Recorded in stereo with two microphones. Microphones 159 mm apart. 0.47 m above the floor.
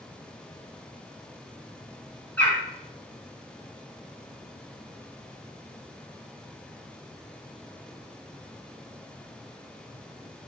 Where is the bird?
10° left (ahead or behind), 1.5 m.